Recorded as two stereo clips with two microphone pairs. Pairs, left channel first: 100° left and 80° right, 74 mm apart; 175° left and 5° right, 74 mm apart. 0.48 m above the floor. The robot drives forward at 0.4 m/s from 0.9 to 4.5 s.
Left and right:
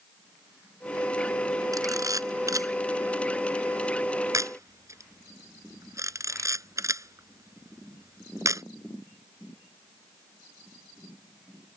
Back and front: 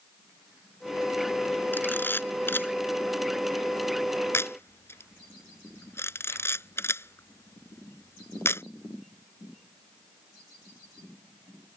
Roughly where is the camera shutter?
Behind right.